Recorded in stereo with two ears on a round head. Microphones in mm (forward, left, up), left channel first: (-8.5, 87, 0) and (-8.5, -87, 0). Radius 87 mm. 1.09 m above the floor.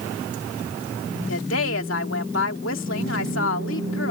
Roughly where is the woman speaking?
Left.